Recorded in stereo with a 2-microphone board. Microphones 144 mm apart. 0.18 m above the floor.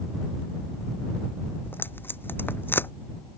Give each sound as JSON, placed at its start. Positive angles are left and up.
{"t": 1.6, "sound": "tape being pulled", "side_deg": 15}